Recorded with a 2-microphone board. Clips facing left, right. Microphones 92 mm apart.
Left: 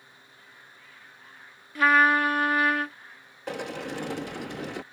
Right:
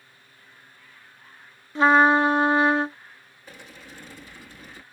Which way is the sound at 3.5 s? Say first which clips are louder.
Left 13 dB; 70° left (ahead or behind).